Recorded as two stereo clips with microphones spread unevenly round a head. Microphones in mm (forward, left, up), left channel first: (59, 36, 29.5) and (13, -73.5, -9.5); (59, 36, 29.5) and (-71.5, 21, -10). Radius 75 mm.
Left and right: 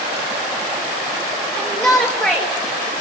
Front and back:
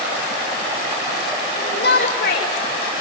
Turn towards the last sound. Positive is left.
turn(degrees=-20)